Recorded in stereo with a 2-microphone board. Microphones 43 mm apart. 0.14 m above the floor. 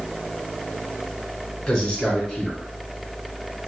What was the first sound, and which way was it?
A man speaking, 20° left (ahead or behind).